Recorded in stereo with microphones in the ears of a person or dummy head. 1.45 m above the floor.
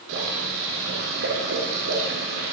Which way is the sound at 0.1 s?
65° right (ahead or behind).